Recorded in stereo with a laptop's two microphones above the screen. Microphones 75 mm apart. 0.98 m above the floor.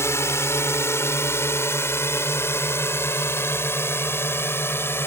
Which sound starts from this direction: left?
A drone, at 0.0 s.